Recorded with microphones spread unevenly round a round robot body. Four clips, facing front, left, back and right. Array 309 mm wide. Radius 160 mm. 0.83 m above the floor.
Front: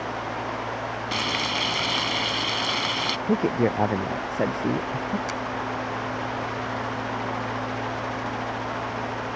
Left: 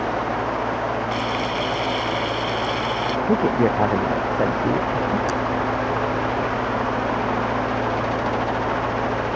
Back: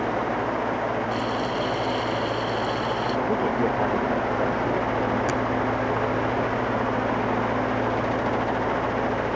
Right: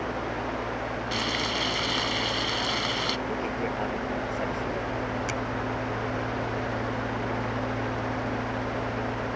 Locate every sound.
1.1 s frying: 20° right
3.3 s a man speaking: 55° left
5.3 s a finger snap: 170° left